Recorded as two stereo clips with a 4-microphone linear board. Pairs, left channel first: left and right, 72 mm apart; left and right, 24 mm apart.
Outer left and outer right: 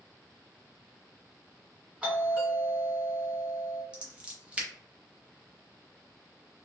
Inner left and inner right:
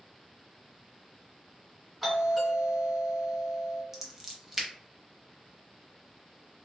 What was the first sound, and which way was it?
A doorbell, 15° right (ahead or behind).